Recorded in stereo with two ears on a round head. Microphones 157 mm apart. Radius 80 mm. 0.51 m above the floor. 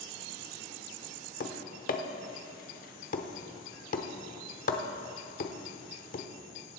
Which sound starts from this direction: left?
Tapping, at 1.4 s.